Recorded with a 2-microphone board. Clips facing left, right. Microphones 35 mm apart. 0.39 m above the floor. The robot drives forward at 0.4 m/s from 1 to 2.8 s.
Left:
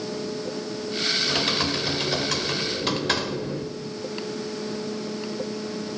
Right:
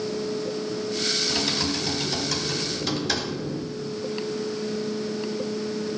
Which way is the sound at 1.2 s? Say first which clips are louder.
Left 2 dB; 35° left (ahead or behind).